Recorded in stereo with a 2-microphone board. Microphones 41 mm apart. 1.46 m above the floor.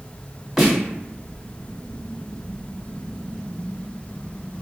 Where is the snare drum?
Centre (ahead or behind), 1.8 m.